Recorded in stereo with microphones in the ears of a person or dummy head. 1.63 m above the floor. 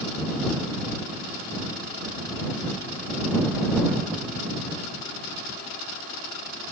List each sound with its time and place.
Only background noise.